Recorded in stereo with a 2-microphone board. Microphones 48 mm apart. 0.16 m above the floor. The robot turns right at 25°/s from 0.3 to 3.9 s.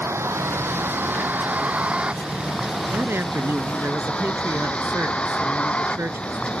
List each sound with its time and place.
0.0 s a vehicle: 65° right; by 6.6 s 25° left
2.9 s a man speaking: 55° right (ahead or behind)